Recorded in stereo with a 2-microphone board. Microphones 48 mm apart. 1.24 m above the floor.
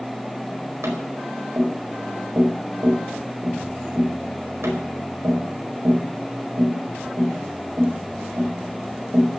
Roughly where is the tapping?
Right.